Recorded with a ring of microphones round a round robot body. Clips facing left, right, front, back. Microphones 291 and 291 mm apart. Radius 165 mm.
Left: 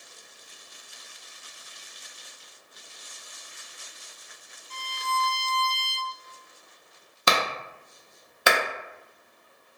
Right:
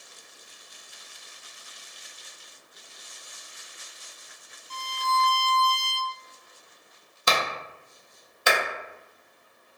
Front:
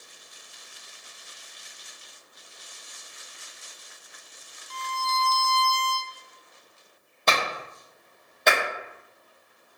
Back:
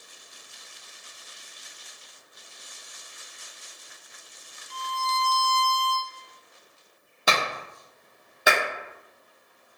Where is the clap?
95° left, 0.6 m.